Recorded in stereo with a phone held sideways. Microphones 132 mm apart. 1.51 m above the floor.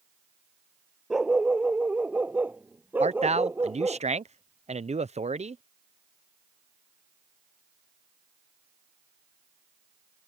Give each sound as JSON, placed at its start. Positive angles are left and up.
{"t": 1.1, "sound": "a dog barking", "side_deg": -5}
{"t": 3.0, "sound": "a man speaking", "side_deg": -55}